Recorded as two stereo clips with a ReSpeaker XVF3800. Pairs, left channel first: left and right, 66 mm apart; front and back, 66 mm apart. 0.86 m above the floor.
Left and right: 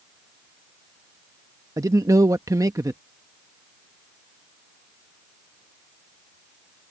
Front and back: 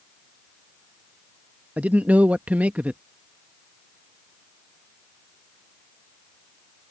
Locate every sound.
1.8 s a man speaking: 110° right